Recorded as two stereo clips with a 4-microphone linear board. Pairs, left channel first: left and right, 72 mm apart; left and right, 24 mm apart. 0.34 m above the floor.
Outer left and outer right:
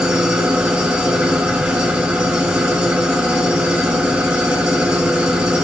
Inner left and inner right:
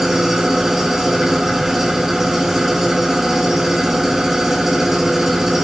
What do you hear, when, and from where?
0.0 s an engine running: 10° right (ahead or behind), 3.5 m